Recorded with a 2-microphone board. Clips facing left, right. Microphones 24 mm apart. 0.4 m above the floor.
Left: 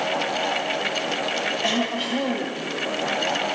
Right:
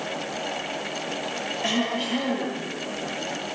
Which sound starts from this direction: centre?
Throat clearing, at 1.6 s.